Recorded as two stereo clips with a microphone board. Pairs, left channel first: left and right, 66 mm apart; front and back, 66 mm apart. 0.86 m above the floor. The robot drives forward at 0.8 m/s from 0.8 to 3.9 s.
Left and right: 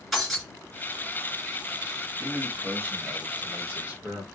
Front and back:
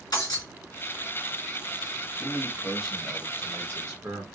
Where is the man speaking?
40° right, 1.1 m; by 4.2 s 145° right, 1.2 m.